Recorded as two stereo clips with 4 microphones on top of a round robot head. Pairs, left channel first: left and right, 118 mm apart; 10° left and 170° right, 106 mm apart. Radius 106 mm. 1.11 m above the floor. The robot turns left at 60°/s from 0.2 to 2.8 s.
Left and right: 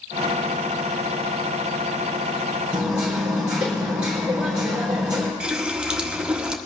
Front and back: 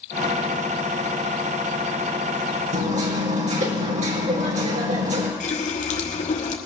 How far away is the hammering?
About 3.5 m.